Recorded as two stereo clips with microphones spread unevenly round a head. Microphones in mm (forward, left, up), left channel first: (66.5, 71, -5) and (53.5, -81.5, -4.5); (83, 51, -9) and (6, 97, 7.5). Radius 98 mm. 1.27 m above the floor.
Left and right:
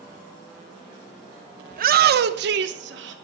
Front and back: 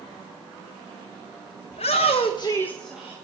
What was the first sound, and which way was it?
A shout, 65° right.